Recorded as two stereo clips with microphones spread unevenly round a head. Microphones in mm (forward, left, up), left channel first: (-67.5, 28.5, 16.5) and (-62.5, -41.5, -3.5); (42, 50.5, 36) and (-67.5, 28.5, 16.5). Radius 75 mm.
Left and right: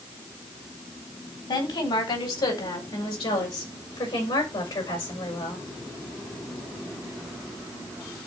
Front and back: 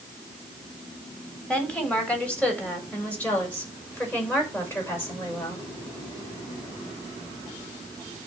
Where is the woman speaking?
95° left, 4 m; by 5.7 s 80° left, 6 m.